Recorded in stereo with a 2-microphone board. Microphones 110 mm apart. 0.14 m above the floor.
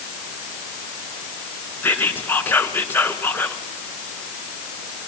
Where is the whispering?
15° left (ahead or behind), 1.8 m.